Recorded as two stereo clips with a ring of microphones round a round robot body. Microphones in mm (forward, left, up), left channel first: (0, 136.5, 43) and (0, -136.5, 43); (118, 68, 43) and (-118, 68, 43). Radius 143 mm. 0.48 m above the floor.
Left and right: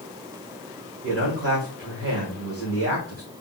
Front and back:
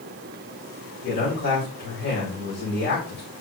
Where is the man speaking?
45° right, 1.9 m.